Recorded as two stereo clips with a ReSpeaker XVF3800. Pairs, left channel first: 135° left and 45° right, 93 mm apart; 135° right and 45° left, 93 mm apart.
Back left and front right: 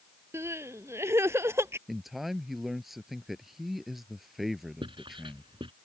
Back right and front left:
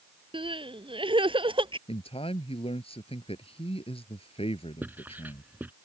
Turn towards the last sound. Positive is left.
turn(degrees=-25)